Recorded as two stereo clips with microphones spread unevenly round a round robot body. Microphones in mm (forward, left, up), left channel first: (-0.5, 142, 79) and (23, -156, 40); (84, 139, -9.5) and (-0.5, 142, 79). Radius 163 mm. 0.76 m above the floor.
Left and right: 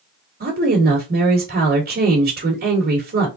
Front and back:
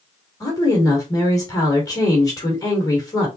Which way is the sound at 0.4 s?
30° right.